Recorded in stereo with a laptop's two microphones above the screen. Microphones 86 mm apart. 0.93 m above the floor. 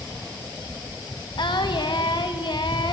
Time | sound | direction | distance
1.4 | singing | 65° left (ahead or behind) | 1.0 m